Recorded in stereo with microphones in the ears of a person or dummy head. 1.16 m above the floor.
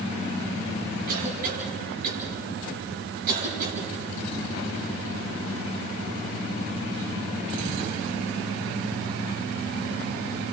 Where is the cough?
55° right (ahead or behind), 9 m.